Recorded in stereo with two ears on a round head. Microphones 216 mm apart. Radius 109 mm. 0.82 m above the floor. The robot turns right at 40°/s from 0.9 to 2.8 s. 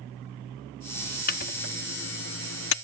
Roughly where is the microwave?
Left.